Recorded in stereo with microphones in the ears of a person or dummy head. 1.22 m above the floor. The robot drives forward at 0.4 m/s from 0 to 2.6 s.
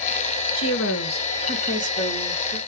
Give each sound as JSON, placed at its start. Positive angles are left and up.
{"t": 0.6, "sound": "a woman speaking", "side_deg": 70, "distance_m": 0.7}